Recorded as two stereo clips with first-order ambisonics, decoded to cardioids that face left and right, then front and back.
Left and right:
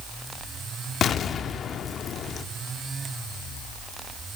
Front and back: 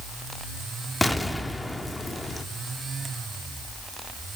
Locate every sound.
1.0 s an explosion: 80° left, 0.7 m